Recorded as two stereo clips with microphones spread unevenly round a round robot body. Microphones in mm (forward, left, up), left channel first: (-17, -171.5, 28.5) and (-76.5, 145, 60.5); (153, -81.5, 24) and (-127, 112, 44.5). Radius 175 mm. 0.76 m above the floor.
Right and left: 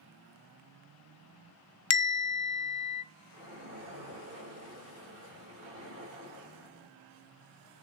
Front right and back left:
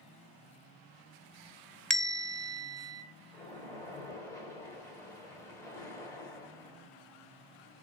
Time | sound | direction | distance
1.9 | a bell | 125° right | 0.6 m
3.3 | a splash | 45° left | 3.5 m